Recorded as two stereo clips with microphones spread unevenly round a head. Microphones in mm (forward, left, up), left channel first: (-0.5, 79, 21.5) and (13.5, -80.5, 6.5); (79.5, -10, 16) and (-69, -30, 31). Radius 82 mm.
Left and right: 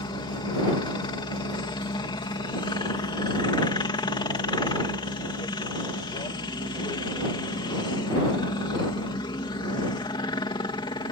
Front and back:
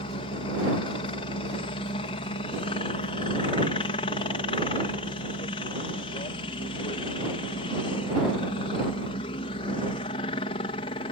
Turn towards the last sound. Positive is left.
turn(degrees=40)